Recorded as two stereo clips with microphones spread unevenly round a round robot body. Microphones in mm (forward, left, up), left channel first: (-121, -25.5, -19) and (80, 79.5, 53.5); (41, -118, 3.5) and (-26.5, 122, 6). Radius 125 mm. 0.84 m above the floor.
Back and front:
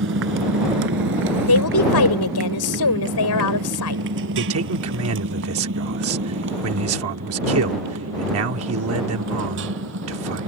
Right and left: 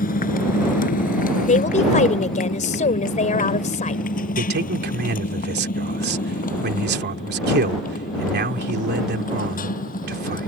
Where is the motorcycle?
15° right.